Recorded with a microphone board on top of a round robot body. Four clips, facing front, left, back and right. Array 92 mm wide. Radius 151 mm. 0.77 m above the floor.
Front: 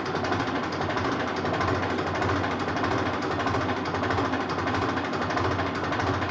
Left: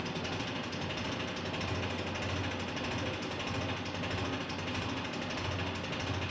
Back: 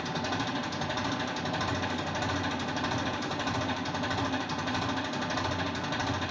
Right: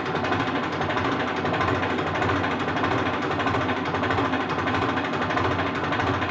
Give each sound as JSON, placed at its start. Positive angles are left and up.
{"t": 0.0, "sound": "an engine running", "azimuth_deg": -60, "distance_m": 1.1}